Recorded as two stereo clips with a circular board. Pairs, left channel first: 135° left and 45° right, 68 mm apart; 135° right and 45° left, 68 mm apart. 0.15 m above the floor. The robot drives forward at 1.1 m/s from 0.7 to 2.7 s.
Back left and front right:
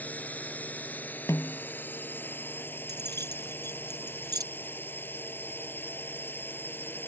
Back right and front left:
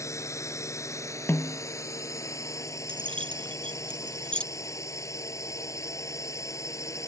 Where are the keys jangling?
60° right.